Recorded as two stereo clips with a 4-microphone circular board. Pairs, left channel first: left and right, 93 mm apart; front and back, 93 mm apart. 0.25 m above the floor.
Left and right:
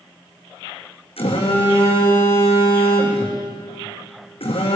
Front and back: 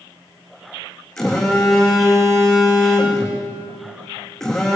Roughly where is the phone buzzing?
Left.